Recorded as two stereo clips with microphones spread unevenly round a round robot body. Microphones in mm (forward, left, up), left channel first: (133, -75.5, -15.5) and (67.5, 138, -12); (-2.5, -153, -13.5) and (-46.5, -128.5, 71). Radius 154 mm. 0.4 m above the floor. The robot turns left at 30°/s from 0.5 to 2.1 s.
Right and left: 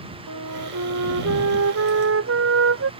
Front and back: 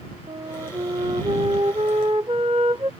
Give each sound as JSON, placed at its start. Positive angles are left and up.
{"t": 0.3, "sound": "a flute", "azimuth_deg": 135}